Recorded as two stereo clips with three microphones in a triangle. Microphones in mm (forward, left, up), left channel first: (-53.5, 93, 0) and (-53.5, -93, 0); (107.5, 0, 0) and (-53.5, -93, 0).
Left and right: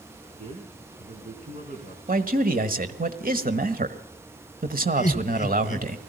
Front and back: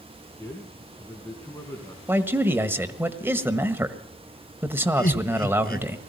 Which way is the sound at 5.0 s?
50° left.